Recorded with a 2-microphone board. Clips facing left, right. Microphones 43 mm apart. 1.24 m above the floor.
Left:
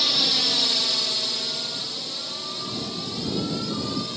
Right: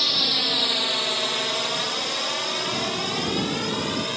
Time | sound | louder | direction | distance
0.0 | a drone | even | 5° right (ahead or behind) | ?